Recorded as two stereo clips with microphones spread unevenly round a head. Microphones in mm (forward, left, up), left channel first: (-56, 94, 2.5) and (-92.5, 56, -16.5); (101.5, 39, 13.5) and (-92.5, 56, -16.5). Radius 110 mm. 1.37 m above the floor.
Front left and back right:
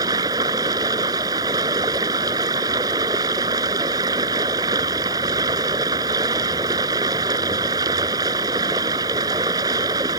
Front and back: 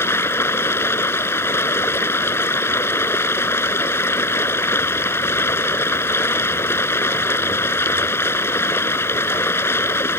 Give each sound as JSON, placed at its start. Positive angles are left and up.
{"t": 0.0, "sound": "running water", "azimuth_deg": -85}